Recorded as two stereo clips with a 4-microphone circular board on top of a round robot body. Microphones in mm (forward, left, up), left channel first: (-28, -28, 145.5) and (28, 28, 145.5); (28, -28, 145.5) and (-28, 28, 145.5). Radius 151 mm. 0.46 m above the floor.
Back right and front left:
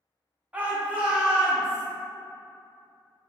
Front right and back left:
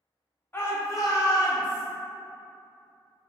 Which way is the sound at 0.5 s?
10° right.